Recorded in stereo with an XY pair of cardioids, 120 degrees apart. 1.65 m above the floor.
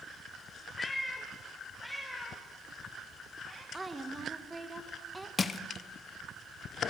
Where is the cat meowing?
10° left, 3 m; by 3.6 s 5° right, 5 m.